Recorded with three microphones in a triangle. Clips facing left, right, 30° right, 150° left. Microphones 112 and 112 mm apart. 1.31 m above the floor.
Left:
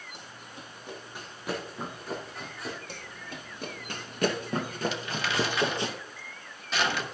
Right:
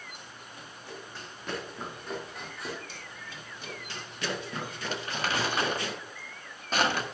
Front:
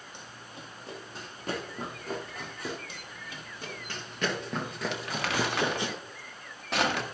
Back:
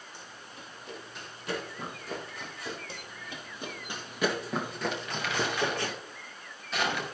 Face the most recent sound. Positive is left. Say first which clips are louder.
# left 1 dB, front 1 dB
turn(degrees=-45)